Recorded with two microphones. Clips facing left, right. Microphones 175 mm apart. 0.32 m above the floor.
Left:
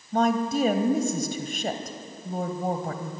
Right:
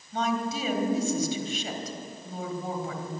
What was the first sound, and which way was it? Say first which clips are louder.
A woman speaking: left 6 dB; 45° left (ahead or behind).